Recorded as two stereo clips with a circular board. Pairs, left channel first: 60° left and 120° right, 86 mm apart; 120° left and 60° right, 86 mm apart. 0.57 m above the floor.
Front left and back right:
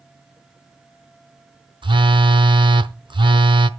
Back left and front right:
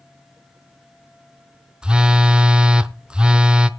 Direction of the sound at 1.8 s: 140° right.